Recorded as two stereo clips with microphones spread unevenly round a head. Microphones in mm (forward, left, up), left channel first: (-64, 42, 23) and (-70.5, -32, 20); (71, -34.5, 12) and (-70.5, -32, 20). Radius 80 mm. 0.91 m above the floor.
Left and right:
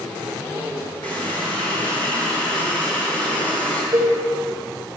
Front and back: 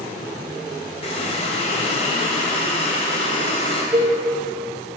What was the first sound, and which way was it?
A running tap, 45° right.